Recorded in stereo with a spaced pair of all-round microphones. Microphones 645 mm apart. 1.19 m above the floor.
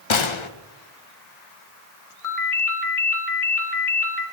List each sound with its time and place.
0.1 s a gunshot: 50° left (ahead or behind), 0.7 m
2.2 s a ringtone: 60° left (ahead or behind), 1.3 m